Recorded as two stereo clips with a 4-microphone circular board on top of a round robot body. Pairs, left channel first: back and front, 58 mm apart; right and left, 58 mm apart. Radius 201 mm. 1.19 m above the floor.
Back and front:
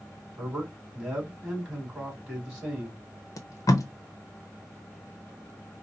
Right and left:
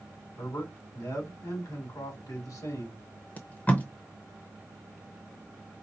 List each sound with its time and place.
0.4 s a man speaking: 75° right, 3.5 m
3.4 s tape being pulled: 155° right, 0.6 m